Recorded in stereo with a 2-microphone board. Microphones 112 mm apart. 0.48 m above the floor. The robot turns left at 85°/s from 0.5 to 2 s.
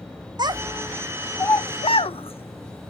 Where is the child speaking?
40° right (ahead or behind), 0.5 m; by 2.9 s 55° left (ahead or behind), 0.5 m.